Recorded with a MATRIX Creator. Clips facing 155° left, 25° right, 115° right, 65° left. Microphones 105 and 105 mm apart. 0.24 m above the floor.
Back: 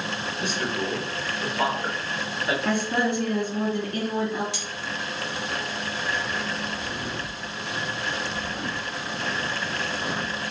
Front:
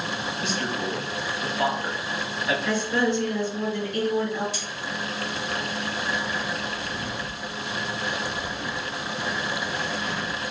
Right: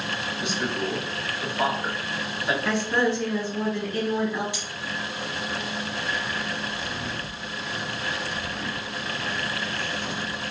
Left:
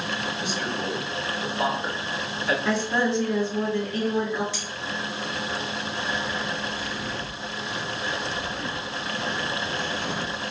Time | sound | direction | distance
0.4 | a man speaking | 175° right | 3 m
2.6 | a woman speaking | 160° left | 3 m
4.5 | cutlery clinking | 170° left | 2.5 m
6.0 | footsteps | 150° left | 3 m